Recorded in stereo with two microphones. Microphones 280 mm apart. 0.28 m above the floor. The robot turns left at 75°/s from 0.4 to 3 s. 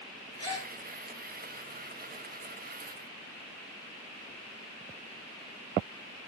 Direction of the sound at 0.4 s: 75° left (ahead or behind).